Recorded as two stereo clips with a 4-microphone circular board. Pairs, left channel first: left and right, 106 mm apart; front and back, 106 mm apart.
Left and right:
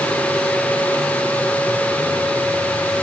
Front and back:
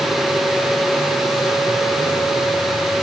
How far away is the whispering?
No whispering in this recording.